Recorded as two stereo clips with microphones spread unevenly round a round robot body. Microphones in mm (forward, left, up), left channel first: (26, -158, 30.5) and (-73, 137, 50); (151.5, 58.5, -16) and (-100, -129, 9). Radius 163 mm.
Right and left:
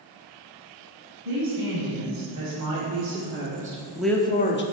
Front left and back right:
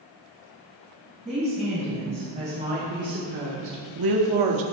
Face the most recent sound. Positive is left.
turn(degrees=-120)